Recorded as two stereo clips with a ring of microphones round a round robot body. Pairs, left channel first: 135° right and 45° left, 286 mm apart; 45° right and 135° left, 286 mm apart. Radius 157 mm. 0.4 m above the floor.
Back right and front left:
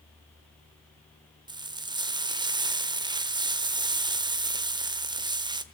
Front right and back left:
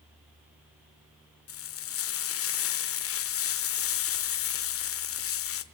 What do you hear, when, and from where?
1.5 s frying: 25° right, 1.3 m